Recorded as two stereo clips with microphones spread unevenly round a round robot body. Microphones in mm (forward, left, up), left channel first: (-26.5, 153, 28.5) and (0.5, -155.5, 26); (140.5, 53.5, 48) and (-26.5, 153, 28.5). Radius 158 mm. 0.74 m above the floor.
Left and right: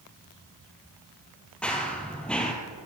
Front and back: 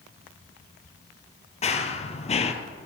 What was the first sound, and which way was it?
Running footsteps, 10° left.